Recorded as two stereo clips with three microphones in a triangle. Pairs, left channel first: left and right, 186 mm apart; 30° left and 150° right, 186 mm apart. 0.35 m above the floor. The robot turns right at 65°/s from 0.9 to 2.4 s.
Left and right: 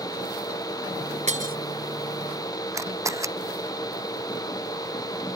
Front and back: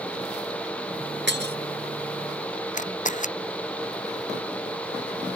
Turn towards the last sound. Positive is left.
turn(degrees=-15)